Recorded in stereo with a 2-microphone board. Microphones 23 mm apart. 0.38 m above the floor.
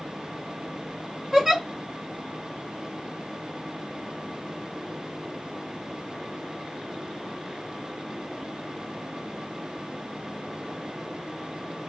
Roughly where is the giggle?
Centre.